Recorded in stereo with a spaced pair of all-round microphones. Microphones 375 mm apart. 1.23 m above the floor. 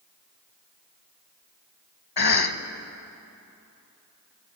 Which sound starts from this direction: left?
A cough, at 2.2 s.